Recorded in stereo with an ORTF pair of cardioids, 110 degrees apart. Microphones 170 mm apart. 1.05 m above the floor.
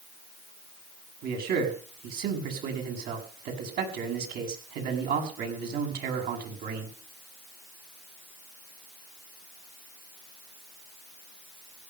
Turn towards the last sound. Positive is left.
turn(degrees=-65)